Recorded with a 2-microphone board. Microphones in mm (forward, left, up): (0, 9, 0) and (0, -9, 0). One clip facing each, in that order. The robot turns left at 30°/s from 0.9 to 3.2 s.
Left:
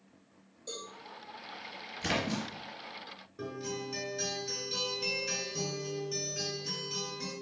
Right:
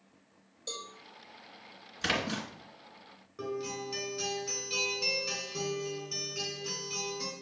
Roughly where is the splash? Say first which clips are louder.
Right 1 dB; right.